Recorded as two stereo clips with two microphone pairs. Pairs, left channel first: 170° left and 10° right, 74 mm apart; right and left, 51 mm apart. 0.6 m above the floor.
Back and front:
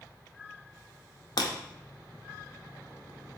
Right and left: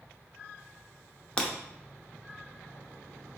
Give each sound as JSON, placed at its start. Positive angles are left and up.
{"t": 1.4, "sound": "breaking glass", "azimuth_deg": -165, "distance_m": 0.6}